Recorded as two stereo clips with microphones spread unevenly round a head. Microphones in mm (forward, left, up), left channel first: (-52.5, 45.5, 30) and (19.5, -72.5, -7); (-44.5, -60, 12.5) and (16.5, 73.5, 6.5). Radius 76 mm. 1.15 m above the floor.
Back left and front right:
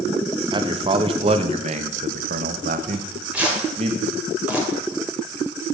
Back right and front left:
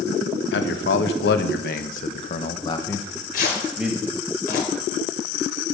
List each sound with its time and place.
0.5 s a man speaking: 110° right, 1.4 m; by 3.9 s 15° right, 1.3 m
2.9 s tearing paper: 145° right, 3 m